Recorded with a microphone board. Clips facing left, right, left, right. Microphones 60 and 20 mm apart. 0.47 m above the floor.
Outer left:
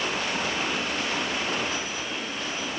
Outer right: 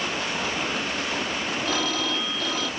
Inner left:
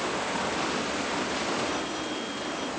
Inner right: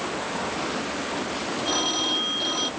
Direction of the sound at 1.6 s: 85° right.